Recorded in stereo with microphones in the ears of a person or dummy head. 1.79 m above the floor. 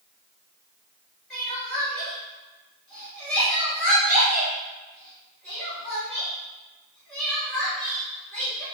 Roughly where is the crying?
Centre.